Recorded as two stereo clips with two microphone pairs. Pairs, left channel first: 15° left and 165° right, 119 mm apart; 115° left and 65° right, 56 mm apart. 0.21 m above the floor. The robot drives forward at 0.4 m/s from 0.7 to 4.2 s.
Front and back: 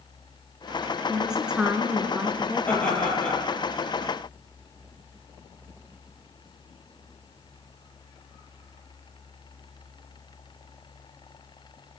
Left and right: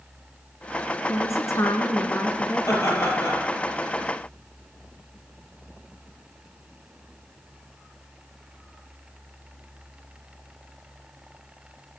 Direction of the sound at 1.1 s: 105° left.